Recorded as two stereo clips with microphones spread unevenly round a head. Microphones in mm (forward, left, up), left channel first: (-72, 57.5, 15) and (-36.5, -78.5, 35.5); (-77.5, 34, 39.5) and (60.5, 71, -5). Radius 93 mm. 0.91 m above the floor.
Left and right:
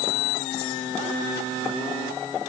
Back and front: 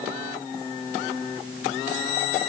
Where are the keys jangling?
I don't hear keys jangling.